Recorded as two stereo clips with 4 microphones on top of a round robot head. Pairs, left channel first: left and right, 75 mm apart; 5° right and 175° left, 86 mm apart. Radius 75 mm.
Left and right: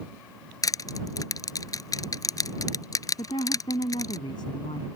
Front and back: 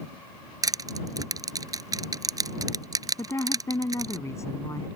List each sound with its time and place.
0.6 s crushing: 130° left
3.2 s a woman speaking: 50° left